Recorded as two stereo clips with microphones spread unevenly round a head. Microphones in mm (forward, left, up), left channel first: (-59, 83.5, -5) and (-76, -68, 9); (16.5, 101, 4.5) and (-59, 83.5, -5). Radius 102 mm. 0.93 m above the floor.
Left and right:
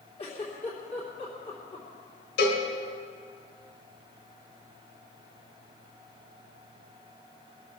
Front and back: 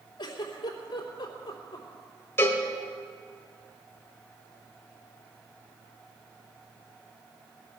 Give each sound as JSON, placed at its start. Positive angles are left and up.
{"t": 0.2, "sound": "a giggle", "azimuth_deg": 25, "distance_m": 3.0}
{"t": 2.4, "sound": "a cowbell", "azimuth_deg": 75, "distance_m": 2.5}